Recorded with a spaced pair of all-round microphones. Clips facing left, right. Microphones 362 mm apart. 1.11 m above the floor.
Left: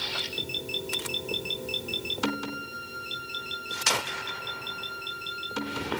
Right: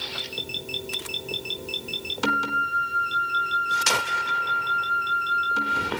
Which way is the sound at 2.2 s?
60° right (ahead or behind).